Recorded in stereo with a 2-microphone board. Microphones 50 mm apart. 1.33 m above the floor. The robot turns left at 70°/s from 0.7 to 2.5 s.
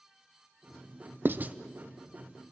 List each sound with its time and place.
1.2 s writing: 45° right (ahead or behind), 0.7 m; by 1.6 s 25° right (ahead or behind), 0.7 m